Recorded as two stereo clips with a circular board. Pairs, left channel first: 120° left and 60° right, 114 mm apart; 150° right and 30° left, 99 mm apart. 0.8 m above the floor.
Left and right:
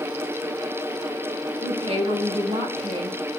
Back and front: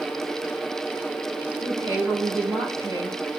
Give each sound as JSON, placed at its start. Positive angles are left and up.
{"t": 1.6, "sound": "a woman speaking", "azimuth_deg": -25, "distance_m": 5.0}